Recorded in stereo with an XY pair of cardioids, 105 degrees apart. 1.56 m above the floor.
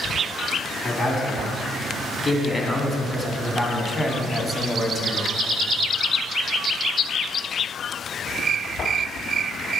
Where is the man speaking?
35° left, 4 m; by 5.3 s 15° left, 1.6 m.